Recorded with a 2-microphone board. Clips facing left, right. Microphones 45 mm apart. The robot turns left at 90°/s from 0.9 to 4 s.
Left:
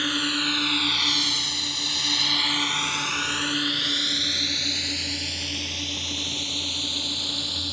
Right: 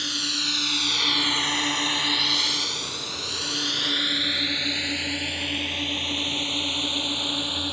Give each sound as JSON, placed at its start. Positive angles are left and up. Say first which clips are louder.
{"t": 0.0, "sound": "a drone", "louder": "left 4 dB", "side_deg": 30}